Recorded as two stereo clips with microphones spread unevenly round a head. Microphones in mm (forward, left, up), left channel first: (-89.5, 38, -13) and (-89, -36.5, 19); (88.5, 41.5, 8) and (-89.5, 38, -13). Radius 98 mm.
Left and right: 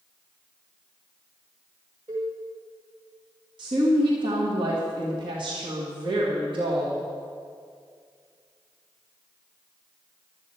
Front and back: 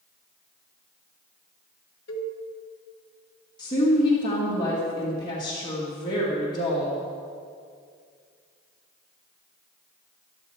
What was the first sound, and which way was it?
A cowbell, 25° right.